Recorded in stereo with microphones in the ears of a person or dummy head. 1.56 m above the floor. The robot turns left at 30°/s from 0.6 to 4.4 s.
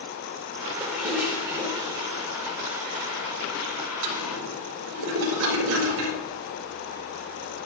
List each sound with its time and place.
0.8 s a toilet flushing: 10° left (ahead or behind), 5 m; by 6.2 s 80° right, 5 m